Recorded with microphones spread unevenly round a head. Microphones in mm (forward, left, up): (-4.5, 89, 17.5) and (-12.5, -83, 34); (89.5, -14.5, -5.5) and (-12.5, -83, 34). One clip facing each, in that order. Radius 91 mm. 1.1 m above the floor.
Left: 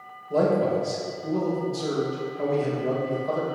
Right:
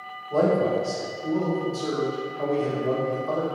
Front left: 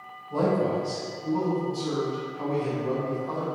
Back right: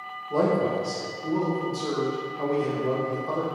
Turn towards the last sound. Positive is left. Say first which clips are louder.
# even, back right 1 dB
turn(degrees=145)